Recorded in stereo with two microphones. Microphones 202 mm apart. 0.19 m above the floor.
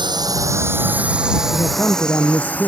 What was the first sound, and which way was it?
A drone, 20° right (ahead or behind).